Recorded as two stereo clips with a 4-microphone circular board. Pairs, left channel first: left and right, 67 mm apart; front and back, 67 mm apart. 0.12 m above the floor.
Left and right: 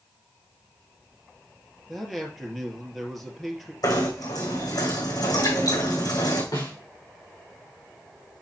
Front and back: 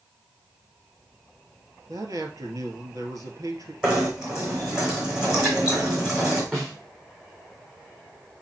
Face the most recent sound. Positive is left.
turn(degrees=100)